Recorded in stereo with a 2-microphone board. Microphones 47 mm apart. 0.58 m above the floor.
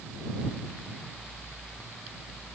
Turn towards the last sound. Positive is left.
No sound to turn to.